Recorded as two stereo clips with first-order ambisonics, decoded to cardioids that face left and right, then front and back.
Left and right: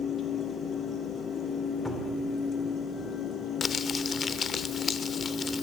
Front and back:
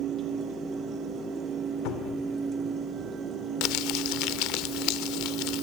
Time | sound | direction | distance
1.9 | a cupboard door | 10° left | 3 m
3.6 | crumpling | 25° left | 1.1 m